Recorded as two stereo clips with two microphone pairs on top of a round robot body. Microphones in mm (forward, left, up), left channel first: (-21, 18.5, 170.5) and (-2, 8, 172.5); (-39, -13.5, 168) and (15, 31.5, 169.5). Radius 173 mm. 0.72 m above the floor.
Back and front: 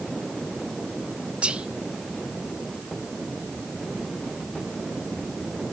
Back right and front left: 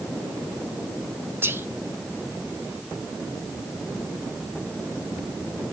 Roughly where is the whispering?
Ahead.